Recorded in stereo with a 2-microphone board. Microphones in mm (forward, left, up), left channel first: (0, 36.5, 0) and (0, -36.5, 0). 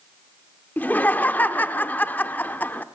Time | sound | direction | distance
0.8 | laughter | 25° left (ahead or behind) | 0.9 m